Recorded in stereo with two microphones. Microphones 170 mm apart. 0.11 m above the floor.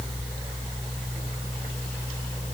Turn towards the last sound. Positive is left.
No sound to turn to.